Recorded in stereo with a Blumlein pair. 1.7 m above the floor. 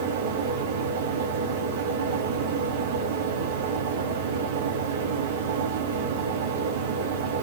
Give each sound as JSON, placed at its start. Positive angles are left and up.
{"t": 0.0, "sound": "a fan", "azimuth_deg": -55, "distance_m": 0.7}